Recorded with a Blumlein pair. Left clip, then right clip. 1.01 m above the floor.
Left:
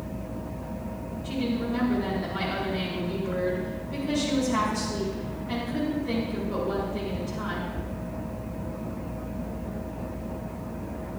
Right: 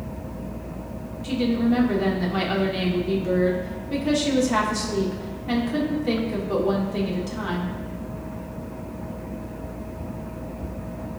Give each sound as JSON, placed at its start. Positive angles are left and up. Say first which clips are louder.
{"t": 1.2, "sound": "a woman speaking", "louder": "right 7 dB", "azimuth_deg": -30, "distance_m": 2.0}